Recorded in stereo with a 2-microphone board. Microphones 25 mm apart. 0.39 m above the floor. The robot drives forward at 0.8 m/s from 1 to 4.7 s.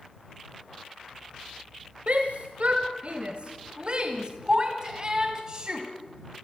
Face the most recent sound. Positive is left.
turn(degrees=-30)  # may be behind; listen again after turning